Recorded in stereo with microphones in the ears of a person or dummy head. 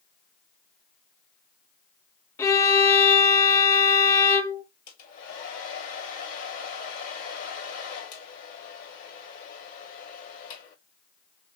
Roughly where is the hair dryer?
Left.